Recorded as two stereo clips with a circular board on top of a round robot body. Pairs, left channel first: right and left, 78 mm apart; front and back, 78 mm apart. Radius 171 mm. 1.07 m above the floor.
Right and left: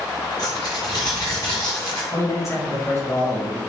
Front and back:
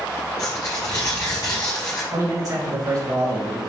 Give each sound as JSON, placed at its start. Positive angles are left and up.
{"t": 0.4, "sound": "tearing paper", "azimuth_deg": -45, "distance_m": 1.1}
{"t": 2.1, "sound": "a man speaking", "azimuth_deg": -140, "distance_m": 2.5}